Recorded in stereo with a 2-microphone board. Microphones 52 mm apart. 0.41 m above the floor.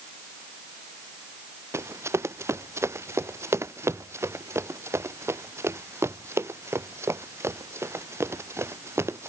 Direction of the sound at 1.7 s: 65° right (ahead or behind).